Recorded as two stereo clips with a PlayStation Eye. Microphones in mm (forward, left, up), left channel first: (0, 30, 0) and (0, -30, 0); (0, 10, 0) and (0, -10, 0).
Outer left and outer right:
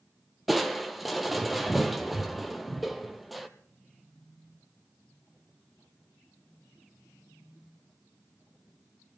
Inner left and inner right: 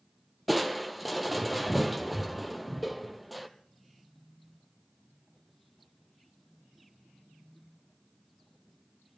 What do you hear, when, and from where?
0.5 s crushing: centre (ahead or behind), 1.2 m